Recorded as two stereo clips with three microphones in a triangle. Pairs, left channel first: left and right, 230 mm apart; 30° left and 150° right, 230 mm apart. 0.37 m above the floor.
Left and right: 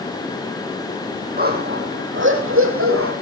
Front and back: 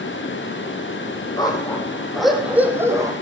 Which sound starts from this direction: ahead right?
A dog barking, at 1.4 s.